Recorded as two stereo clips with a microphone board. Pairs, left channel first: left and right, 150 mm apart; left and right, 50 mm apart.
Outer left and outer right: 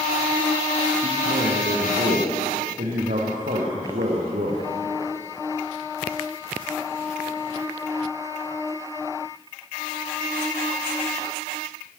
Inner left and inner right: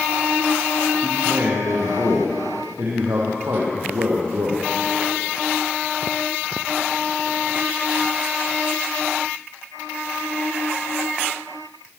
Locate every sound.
1.0 s a man speaking: 65° right (ahead or behind), 4.5 m